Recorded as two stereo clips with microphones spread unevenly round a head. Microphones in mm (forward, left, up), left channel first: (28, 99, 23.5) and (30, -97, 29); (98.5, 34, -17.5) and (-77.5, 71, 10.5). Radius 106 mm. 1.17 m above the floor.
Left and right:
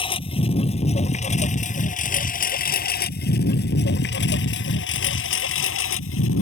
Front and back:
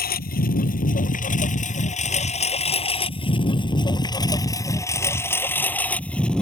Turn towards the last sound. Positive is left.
turn(degrees=75)